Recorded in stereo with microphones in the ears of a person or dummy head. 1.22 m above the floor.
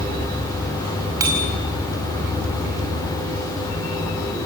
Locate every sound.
1.2 s a bicycle bell: 15° right (ahead or behind), 5 m